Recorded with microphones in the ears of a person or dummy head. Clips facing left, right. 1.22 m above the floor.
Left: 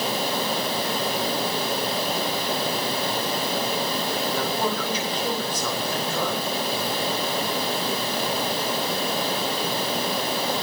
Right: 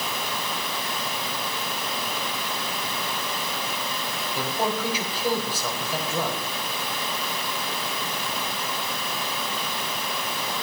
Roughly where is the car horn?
I don't hear a car horn.